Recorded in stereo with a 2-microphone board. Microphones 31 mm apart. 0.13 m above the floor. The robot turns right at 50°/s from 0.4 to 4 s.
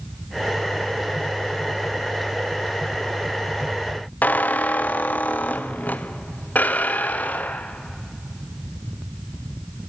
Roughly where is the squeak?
Left.